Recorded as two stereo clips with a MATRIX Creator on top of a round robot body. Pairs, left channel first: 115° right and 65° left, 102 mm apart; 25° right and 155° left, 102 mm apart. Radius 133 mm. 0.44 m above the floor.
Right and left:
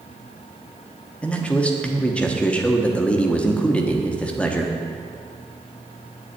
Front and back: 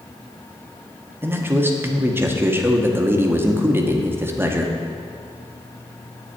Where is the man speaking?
175° right, 1.2 m.